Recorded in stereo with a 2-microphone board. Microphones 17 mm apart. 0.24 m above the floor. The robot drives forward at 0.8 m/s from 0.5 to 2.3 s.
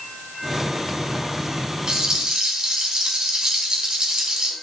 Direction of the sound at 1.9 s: 50° right (ahead or behind).